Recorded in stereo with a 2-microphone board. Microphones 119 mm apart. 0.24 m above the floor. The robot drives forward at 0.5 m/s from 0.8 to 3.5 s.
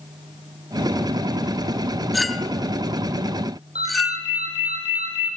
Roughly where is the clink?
Centre.